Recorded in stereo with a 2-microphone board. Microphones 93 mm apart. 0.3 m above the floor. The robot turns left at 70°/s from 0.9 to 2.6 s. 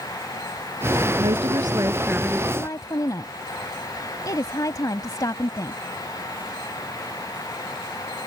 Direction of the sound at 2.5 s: 40° left (ahead or behind).